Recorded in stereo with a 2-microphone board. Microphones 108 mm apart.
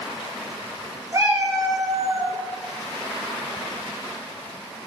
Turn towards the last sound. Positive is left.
turn(degrees=-60)  # may be behind; listen again after turning